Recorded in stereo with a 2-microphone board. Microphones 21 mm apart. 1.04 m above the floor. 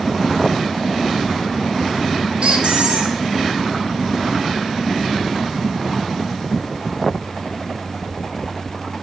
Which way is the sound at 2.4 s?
65° right (ahead or behind).